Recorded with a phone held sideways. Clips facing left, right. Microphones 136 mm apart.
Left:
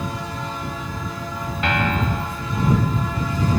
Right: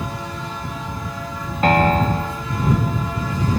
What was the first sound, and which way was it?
A piano, 40° right (ahead or behind).